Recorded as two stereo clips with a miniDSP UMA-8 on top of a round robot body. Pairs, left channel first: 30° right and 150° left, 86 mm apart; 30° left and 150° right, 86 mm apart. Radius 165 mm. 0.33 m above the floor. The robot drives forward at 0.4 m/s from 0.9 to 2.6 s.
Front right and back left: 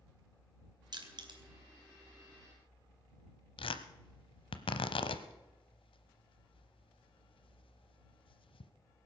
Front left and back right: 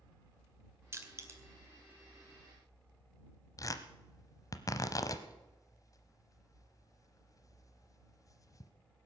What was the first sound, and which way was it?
Crushing, 155° left.